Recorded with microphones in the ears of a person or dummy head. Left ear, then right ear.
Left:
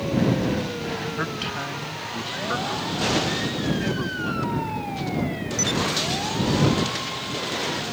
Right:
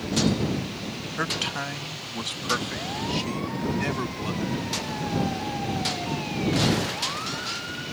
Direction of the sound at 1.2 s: 20° right (ahead or behind).